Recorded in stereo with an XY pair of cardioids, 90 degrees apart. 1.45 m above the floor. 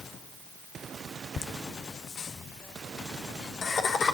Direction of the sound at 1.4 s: 60° left.